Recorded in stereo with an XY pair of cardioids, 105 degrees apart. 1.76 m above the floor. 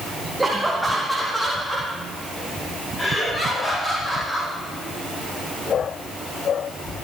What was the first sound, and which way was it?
Laughter, 15° right.